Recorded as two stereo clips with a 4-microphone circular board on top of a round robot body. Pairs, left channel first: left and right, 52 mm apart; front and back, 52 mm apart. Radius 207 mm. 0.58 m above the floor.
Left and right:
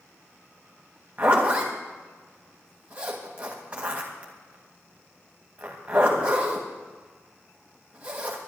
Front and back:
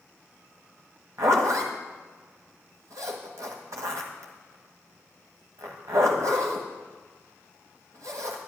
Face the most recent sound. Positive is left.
turn(degrees=-155)